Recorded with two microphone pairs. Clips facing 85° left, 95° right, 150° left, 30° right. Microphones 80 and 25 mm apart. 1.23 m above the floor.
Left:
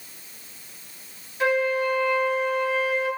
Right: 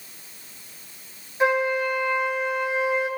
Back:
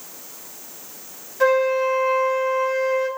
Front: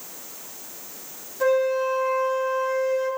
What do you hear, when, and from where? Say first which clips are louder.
1.4 s a flute: right 1 dB, back 3 dB; 160° right, 4.5 m